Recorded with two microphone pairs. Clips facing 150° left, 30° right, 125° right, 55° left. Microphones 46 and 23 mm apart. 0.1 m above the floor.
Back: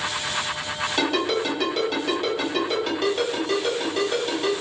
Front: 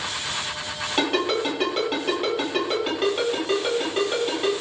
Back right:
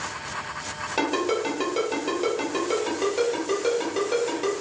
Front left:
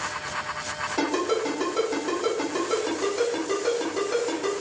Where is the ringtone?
95° right, 1.8 m.